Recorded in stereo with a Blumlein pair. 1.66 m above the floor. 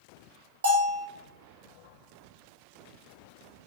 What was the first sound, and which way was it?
A bell, 70° right.